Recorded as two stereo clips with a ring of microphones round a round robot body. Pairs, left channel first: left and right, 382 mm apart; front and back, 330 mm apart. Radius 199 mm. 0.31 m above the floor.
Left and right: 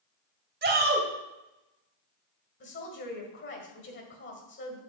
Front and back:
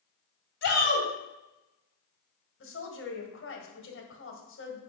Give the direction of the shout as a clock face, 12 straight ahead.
1 o'clock.